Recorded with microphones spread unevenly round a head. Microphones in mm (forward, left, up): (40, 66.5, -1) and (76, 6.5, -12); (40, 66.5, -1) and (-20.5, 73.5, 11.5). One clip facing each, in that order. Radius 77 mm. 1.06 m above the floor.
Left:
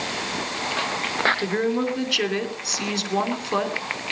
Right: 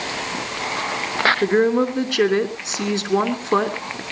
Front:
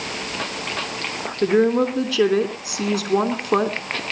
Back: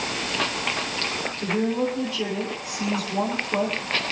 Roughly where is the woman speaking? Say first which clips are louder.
Right 6 dB, front 8 dB; ahead.